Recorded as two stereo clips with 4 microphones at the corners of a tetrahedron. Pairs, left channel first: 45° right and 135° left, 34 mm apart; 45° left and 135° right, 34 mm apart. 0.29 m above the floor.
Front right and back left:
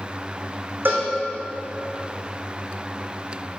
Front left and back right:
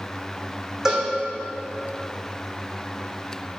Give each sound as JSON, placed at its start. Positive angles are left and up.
{"t": 0.8, "sound": "a cowbell", "azimuth_deg": 150, "distance_m": 3.0}